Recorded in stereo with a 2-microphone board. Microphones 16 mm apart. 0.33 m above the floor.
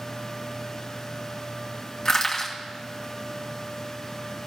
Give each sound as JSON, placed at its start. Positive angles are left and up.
{"t": 2.0, "sound": "crushing", "side_deg": 25, "distance_m": 2.0}